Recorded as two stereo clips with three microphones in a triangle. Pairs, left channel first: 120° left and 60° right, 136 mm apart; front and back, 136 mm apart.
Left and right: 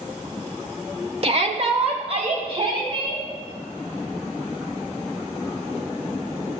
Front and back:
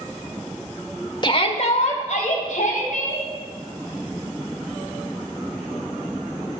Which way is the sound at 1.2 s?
45° right.